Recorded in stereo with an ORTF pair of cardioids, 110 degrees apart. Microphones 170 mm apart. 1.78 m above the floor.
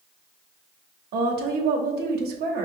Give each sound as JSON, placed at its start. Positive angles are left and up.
{"t": 1.1, "sound": "a woman speaking", "azimuth_deg": -65, "distance_m": 0.8}